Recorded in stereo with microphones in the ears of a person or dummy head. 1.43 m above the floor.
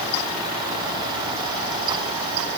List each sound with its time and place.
Only background noise.